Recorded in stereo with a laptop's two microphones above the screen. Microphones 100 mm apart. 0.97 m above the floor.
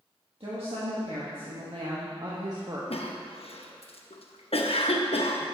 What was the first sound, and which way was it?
A woman speaking, 65° right (ahead or behind).